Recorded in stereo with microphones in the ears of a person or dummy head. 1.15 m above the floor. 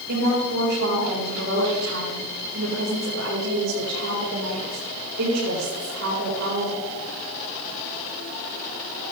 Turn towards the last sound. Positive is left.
turn(degrees=-75)  # may be behind; listen again after turning